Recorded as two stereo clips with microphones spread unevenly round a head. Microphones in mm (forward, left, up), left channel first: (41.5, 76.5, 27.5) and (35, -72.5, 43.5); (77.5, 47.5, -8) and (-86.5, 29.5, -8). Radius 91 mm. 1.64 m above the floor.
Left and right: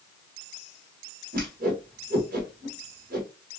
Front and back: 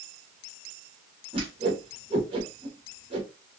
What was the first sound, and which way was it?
A whoosh, 115° right.